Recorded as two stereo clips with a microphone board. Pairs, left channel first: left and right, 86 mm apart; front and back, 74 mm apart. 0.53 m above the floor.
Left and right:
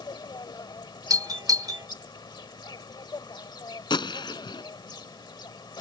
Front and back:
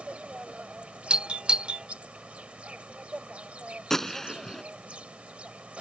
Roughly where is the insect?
Left.